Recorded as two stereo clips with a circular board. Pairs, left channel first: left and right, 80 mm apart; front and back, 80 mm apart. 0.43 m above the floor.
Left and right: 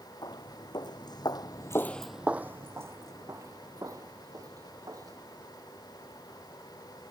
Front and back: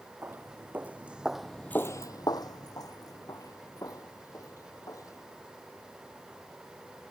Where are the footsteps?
115° left; by 5.4 s 45° right.